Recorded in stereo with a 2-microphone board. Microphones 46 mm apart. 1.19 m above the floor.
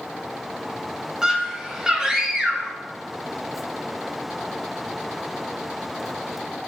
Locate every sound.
1.2 s a scream: 15° right (ahead or behind), 1.9 m